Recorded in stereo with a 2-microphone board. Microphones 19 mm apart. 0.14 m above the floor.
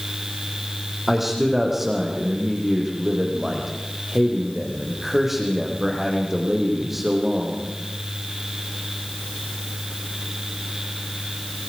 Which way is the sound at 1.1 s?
15° right (ahead or behind).